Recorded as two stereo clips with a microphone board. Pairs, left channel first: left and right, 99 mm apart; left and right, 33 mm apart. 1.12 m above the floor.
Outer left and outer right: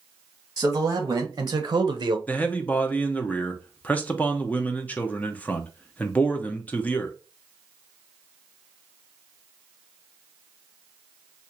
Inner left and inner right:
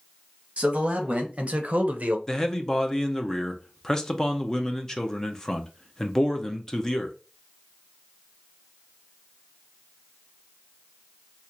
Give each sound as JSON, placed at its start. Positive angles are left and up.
{"t": 0.6, "sound": "a man speaking", "side_deg": -40, "distance_m": 1.3}
{"t": 2.3, "sound": "a man speaking", "side_deg": 15, "distance_m": 0.6}